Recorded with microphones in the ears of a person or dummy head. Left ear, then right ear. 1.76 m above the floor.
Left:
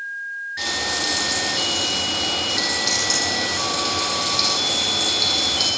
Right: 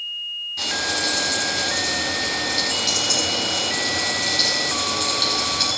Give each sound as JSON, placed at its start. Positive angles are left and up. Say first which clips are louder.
{"t": 0.6, "sound": "frying", "louder": "even", "side_deg": -10, "distance_m": 6.0}